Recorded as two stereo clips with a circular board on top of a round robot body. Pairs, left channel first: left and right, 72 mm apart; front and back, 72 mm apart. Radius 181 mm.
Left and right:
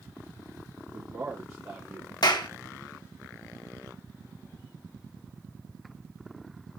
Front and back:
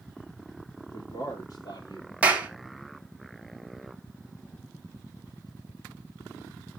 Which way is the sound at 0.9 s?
15° right.